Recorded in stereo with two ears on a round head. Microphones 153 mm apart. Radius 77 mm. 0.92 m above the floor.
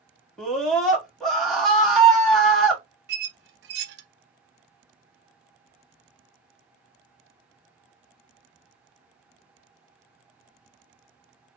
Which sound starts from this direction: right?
A squeak, at 3.1 s.